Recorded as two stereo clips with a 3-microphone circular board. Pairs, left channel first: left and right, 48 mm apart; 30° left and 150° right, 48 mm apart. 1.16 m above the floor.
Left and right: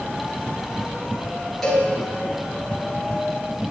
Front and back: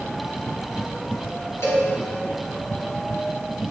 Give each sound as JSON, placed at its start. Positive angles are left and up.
{"t": 1.6, "sound": "a cowbell", "azimuth_deg": 5, "distance_m": 4.0}